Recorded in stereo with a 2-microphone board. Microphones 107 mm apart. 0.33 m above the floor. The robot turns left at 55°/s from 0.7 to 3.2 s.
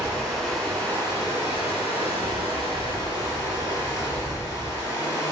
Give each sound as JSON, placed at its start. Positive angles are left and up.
{"t": 0.0, "sound": "running water", "azimuth_deg": 175, "distance_m": 0.9}